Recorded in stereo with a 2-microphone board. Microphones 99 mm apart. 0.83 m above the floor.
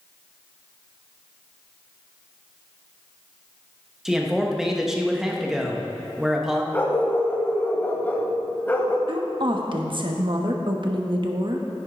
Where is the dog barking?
20° left (ahead or behind), 1.1 m.